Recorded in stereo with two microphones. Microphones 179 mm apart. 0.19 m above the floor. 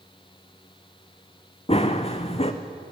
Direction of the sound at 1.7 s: 35° left (ahead or behind).